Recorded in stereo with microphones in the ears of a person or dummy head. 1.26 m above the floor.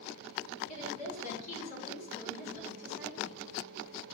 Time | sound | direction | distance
0.7 | a woman speaking | 50° left (ahead or behind) | 4.5 m